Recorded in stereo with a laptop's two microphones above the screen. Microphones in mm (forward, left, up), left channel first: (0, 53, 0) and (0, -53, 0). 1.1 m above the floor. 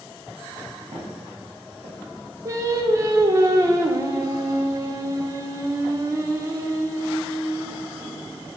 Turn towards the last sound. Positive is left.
turn(degrees=-30)  # may be behind; listen again after turning